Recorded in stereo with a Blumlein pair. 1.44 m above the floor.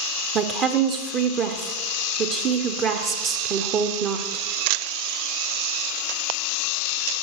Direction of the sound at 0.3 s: 30° right.